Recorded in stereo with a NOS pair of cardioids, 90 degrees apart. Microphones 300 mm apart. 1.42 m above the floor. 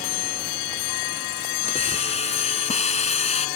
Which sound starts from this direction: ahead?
A hiss, at 1.7 s.